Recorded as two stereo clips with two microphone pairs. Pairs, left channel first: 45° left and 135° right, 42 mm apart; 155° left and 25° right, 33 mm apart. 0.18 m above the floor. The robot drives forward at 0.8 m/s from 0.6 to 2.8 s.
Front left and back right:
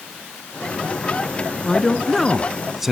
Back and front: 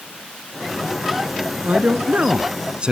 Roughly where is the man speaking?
Ahead right.